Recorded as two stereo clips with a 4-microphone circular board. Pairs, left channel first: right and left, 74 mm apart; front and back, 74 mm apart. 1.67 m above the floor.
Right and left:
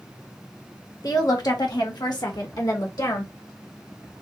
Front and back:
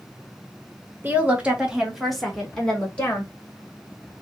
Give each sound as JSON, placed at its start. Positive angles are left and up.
{"t": 1.0, "sound": "a woman speaking", "azimuth_deg": -115, "distance_m": 1.4}